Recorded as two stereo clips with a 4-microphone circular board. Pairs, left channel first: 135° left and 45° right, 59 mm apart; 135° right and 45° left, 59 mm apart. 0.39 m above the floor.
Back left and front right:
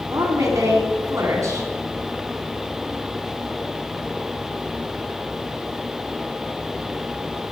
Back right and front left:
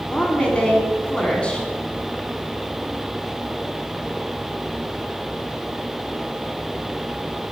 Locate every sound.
0.1 s a woman speaking: 65° right, 3 m